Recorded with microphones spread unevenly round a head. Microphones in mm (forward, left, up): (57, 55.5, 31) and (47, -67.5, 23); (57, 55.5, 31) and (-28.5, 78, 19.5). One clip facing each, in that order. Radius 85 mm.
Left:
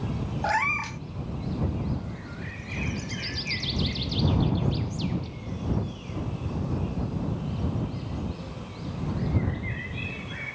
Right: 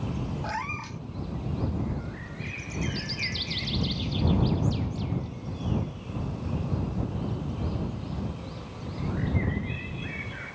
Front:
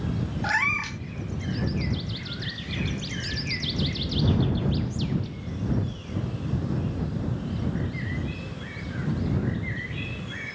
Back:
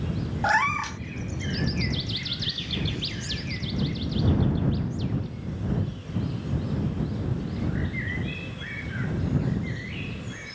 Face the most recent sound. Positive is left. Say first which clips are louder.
# left 6 dB, back 5 dB
turn(degrees=115)